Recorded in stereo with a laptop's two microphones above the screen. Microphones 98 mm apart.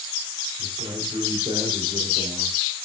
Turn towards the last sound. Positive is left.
turn(degrees=-85)